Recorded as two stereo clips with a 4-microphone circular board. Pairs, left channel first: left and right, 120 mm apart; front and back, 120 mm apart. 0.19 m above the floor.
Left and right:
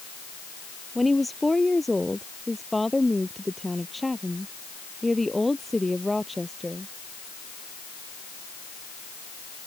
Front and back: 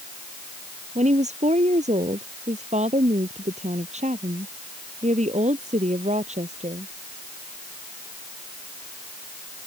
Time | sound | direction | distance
0.9 | a woman speaking | straight behind | ?